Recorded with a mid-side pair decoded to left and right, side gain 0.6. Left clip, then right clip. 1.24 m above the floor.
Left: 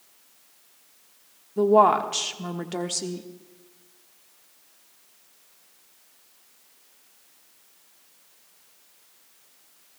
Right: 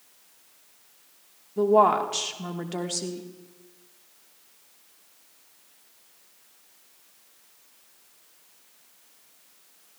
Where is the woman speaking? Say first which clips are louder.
Left 2 dB; 10° left, 1.4 m.